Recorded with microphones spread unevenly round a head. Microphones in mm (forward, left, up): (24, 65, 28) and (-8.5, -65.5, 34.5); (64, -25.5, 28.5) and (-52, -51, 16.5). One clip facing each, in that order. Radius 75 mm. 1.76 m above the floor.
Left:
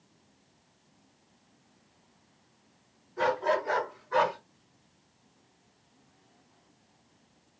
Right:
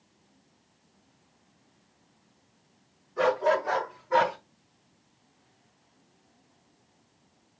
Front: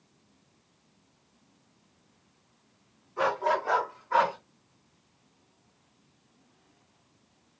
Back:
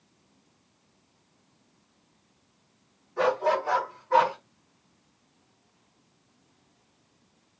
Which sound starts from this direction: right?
A dog barking, at 3.2 s.